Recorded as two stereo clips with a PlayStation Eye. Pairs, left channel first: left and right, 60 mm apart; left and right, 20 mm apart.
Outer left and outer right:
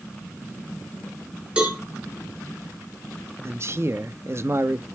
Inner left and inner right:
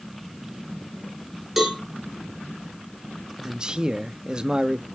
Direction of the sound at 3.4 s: 45° right (ahead or behind).